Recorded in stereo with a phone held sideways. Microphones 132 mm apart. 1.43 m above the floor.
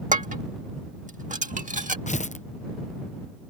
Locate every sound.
0.1 s dishes clattering: 75° right (ahead or behind)
2.1 s tearing paper: 65° left (ahead or behind)